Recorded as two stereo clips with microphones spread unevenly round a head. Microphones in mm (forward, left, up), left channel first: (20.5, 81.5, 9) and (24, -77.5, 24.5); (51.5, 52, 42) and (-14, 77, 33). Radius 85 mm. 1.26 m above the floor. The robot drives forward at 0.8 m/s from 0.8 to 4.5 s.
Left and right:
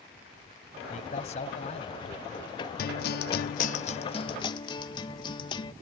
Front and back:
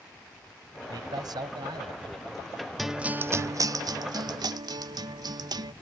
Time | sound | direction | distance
0.9 | a man speaking | 140° left | ?
2.8 | a guitar | 70° left | ?